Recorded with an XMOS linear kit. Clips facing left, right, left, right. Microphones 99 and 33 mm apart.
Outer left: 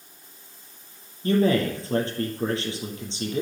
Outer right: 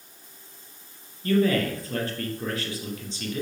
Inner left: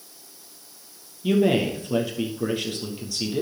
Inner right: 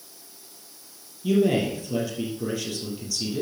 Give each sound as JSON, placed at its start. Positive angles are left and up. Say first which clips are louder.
{"t": 1.2, "sound": "a man speaking", "louder": "outer left 1 dB, inner left 1 dB", "side_deg": 30, "distance_m": 2.5}